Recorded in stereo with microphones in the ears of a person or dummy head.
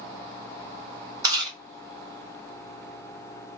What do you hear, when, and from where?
1.2 s chewing: 25° right (ahead or behind), 1.8 m